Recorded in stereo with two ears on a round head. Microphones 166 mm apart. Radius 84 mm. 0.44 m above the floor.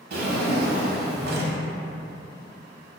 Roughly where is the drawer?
Right.